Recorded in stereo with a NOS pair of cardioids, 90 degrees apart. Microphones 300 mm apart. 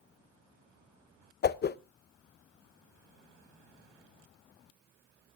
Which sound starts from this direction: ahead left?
A whoosh, at 1.4 s.